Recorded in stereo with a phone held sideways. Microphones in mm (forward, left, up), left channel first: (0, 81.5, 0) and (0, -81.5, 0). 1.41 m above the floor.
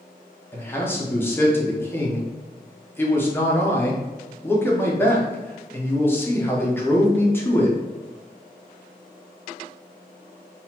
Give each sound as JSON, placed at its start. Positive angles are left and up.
{"t": 0.5, "sound": "a man speaking", "side_deg": 15, "distance_m": 0.8}